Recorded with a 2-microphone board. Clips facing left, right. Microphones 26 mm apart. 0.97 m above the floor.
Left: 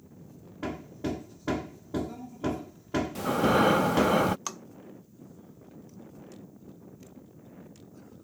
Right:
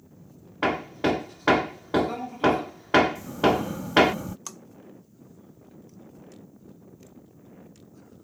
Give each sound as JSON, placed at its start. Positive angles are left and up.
{"t": 0.6, "sound": "hammering", "side_deg": -70}
{"t": 3.1, "sound": "breathing", "side_deg": 80}
{"t": 4.5, "sound": "tapping", "side_deg": 25}